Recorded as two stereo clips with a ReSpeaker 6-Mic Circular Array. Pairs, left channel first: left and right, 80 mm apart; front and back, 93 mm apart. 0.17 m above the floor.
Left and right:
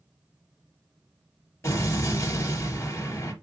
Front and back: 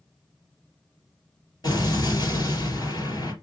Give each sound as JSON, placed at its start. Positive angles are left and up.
{"t": 1.6, "sound": "an explosion", "azimuth_deg": 40, "distance_m": 3.0}